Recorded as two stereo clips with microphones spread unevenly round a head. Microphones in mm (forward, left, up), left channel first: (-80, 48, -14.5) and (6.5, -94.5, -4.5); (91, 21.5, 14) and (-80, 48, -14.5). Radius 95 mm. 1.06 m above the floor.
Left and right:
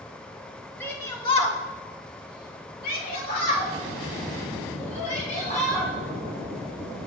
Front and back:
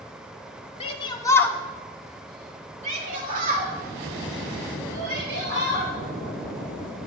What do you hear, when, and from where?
0.8 s a shout: 45° left, 1.5 m; by 5.9 s 160° left, 4.5 m